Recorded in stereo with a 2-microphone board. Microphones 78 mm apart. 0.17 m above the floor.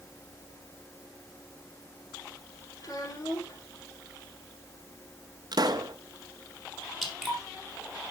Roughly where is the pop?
Right.